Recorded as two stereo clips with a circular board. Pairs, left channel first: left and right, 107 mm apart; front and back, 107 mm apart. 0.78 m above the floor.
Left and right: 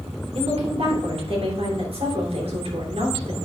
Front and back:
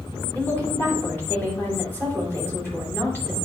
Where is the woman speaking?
70° right, 3 m.